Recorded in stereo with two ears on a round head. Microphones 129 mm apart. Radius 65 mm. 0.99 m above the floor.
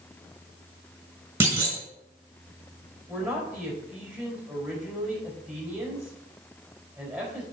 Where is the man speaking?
5° right (ahead or behind), 4 m.